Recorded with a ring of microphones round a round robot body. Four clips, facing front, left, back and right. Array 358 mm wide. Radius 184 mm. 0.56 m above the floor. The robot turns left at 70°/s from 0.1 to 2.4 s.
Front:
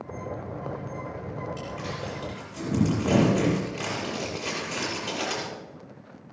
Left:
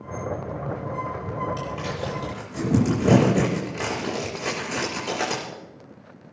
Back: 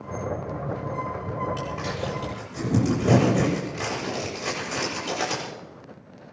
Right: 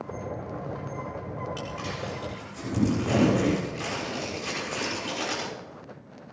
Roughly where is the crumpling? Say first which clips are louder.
Left 4 dB, back 4 dB; behind.